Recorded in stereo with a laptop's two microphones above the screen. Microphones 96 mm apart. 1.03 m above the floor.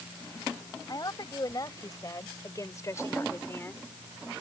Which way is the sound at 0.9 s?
45° left (ahead or behind).